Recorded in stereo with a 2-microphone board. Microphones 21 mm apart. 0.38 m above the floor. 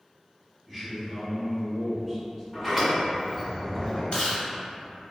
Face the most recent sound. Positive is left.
turn(degrees=60)  # may be behind; listen again after turning